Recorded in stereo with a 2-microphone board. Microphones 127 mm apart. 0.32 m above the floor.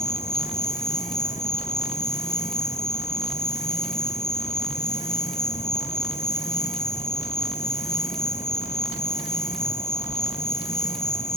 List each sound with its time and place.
0.0 s an insect: 70° left (ahead or behind), 3.5 m